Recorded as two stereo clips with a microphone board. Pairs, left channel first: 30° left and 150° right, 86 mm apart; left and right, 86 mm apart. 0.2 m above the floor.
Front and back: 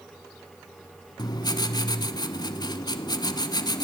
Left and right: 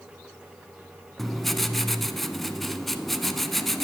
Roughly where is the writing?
Ahead.